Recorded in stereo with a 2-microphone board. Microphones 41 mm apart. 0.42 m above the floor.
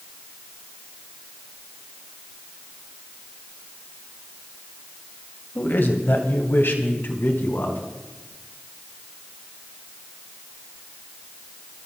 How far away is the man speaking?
About 2.0 m.